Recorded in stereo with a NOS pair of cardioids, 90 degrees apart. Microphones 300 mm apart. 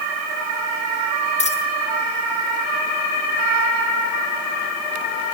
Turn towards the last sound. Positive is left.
turn(degrees=20)